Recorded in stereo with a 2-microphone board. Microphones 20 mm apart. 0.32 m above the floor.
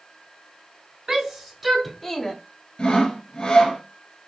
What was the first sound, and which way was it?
A shout, 20° right (ahead or behind).